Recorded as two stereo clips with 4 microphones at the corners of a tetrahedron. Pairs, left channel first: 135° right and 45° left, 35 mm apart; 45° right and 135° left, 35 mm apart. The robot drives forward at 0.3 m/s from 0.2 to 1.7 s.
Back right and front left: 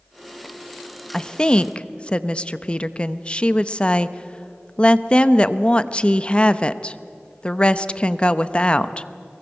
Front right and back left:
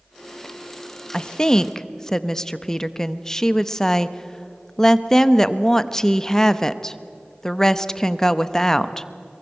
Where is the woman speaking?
85° right, 0.7 m; by 9.1 s 110° right, 0.7 m.